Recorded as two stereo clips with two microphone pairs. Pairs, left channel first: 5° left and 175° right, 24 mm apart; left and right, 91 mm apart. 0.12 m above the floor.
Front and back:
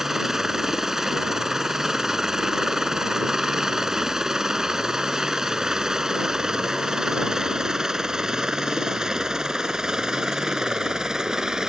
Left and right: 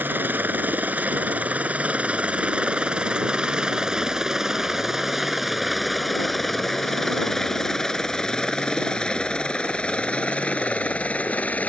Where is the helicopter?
125° right; by 11.7 s 155° left.